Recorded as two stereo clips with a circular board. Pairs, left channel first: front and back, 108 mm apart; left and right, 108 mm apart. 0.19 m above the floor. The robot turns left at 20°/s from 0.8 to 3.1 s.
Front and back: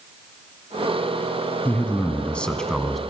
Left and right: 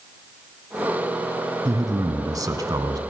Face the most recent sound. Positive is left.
turn(degrees=-90)